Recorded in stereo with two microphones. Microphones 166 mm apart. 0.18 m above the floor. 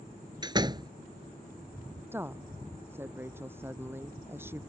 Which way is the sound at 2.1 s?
15° right (ahead or behind).